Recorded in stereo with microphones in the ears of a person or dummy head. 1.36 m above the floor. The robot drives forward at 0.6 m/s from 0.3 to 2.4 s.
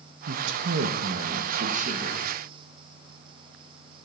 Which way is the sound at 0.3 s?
75° right (ahead or behind).